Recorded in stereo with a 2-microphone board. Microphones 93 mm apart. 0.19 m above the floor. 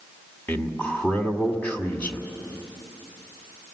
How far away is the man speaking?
About 1.7 m.